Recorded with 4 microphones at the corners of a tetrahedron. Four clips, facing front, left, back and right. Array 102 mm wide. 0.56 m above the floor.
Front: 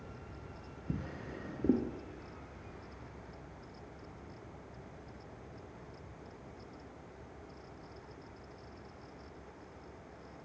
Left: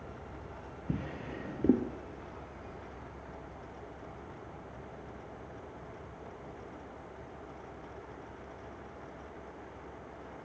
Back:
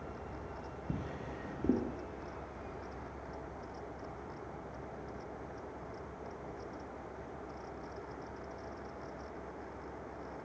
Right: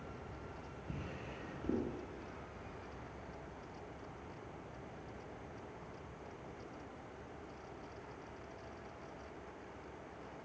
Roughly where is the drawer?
Left.